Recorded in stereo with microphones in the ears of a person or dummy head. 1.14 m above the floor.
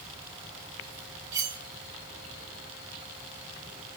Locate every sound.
1.3 s cutlery clinking: 20° right (ahead or behind), 1.7 m